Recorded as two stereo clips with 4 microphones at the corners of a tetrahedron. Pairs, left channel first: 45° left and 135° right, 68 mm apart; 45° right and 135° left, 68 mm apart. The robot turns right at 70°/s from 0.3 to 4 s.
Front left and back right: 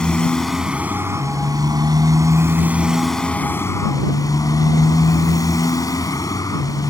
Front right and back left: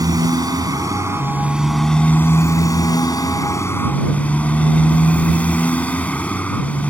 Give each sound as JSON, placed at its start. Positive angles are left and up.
{"t": 0.0, "sound": "a motorcycle", "azimuth_deg": 125}